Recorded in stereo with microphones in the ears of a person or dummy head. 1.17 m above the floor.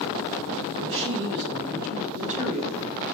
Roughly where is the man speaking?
Right.